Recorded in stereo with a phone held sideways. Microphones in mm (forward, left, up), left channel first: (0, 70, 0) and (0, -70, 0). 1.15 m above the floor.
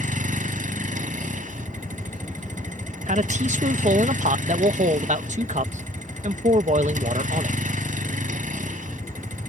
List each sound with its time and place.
0.0 s a vehicle: 65° right (ahead or behind)
3.1 s a man speaking: 55° right (ahead or behind)